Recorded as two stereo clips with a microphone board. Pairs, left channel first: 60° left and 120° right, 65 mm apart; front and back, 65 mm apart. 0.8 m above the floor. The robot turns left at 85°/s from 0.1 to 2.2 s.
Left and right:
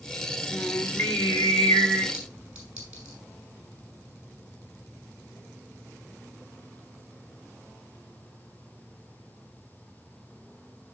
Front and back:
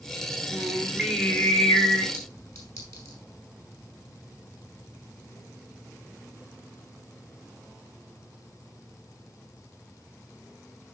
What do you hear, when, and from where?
0.5 s singing: 140° left, 2 m; by 2.0 s 10° left, 2 m
2.1 s a clink: 40° right, 5 m; by 3.2 s 45° right, 5 m